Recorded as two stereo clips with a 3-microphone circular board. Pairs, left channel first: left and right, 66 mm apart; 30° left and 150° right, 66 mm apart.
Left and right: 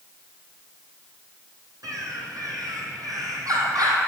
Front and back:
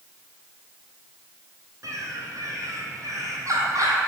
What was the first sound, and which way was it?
A bird, 115° right.